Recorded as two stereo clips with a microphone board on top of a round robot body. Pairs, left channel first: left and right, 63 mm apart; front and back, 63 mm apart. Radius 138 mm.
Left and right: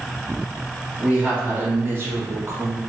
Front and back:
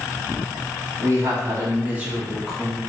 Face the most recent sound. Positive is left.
turn(degrees=-75)